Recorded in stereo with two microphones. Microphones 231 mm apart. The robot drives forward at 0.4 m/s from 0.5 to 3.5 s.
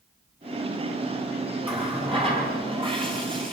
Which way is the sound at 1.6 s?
25° right (ahead or behind).